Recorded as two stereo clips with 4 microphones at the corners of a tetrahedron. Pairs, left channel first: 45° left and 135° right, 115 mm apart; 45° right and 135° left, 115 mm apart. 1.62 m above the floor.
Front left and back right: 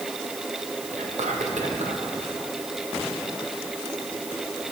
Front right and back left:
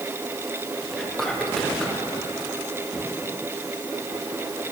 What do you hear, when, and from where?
0.9 s whispering: 130° right, 1.1 m